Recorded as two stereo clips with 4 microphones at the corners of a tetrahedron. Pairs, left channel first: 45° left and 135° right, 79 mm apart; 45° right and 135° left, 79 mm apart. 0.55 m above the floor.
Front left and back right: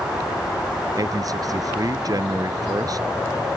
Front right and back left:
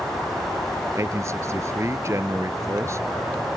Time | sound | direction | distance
0.9 | a man speaking | 175° right | ?